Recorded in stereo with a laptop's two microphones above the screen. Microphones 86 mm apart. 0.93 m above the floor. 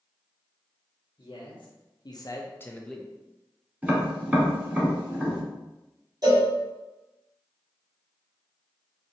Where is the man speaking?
75° left (ahead or behind), 1.3 m; by 3.1 s 10° right (ahead or behind), 0.7 m.